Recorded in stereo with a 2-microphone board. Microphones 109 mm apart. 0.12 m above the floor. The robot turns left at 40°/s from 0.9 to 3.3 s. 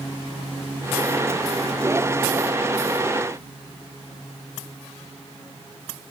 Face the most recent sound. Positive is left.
No sound to turn to.